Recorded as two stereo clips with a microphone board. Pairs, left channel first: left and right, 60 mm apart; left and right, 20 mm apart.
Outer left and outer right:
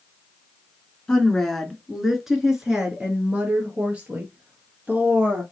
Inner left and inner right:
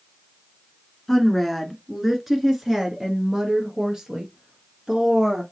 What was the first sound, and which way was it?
A woman speaking, 10° left (ahead or behind).